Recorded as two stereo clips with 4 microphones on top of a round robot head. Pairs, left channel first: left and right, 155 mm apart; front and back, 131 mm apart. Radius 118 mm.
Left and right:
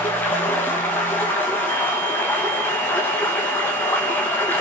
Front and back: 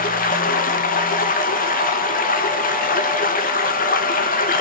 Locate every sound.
0.0 s running water: 10° left, 1.7 m